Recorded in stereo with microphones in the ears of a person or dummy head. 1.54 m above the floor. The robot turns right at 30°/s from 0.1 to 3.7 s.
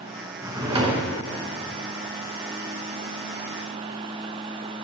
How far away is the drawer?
About 1.0 m.